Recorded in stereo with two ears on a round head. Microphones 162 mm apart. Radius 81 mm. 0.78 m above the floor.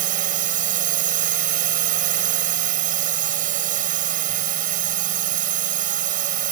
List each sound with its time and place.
0.0 s a drone: 45° right (ahead or behind)